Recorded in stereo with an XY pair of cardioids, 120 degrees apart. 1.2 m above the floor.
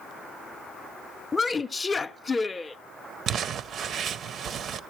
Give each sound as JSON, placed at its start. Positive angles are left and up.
{"t": 1.3, "sound": "a woman speaking", "azimuth_deg": 30, "distance_m": 0.5}
{"t": 3.3, "sound": "crumpling", "azimuth_deg": -50, "distance_m": 0.5}